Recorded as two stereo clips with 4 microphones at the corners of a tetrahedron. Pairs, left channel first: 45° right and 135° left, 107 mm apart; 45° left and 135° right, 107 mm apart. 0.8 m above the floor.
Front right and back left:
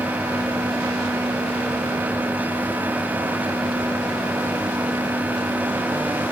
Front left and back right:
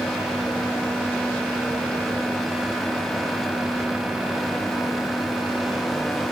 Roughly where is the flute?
No flute in this recording.